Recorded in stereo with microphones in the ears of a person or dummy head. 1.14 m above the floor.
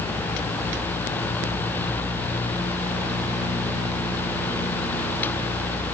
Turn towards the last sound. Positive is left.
No sound to turn to.